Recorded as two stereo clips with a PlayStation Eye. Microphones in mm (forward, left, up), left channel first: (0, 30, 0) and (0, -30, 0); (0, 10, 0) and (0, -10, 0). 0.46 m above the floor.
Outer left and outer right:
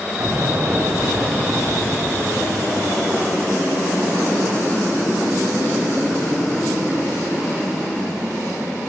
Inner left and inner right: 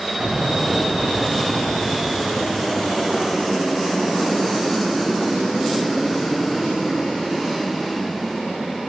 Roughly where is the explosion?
Right.